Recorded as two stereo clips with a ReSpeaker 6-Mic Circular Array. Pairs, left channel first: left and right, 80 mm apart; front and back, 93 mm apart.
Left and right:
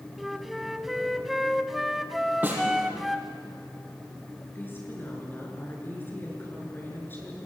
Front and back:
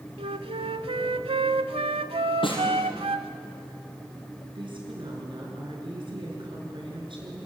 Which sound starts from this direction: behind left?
A woman speaking, at 4.5 s.